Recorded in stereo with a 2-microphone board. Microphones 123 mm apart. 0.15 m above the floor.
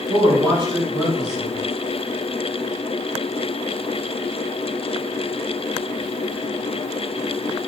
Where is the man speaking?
40° right (ahead or behind), 1.8 m.